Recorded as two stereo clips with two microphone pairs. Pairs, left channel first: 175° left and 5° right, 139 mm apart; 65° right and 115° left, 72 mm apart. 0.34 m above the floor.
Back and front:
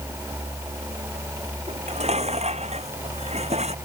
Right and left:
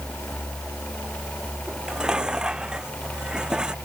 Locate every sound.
1.7 s dishes clattering: 35° left